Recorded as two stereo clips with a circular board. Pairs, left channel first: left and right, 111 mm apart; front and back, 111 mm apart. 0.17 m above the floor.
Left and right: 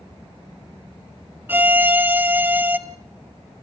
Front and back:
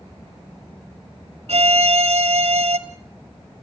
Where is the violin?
165° right, 1.0 m.